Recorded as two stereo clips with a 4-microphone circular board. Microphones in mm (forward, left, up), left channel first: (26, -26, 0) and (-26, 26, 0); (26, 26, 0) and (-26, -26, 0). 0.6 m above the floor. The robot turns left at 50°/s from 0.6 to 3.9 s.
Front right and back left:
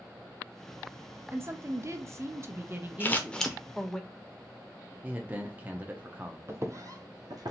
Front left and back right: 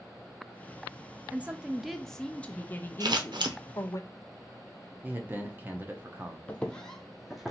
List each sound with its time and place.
1.3 s a woman speaking: 165° left, 0.7 m; by 4.0 s 40° left, 0.7 m
3.0 s scissors: 105° right, 0.7 m; by 3.6 s 135° right, 0.7 m
5.0 s a man speaking: straight behind, 0.7 m
6.5 s footsteps: 105° left, 0.7 m; by 7.5 s 140° left, 1.1 m